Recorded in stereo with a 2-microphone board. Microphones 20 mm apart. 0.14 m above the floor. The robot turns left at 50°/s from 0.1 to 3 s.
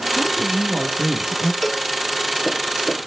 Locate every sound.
0.1 s a woman speaking: 55° right, 3 m; by 1.5 s 125° right, 3 m
1.6 s a cowbell: centre (ahead or behind), 1.9 m; by 1.9 s 10° right (ahead or behind), 1.9 m